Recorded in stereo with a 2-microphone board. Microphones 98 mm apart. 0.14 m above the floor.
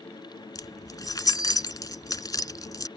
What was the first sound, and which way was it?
Keys jangling, 40° left (ahead or behind).